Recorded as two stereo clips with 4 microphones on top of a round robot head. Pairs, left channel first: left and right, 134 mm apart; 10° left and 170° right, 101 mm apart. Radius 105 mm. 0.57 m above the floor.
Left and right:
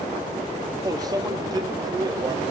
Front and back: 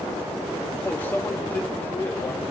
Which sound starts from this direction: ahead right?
A microwave, at 0.8 s.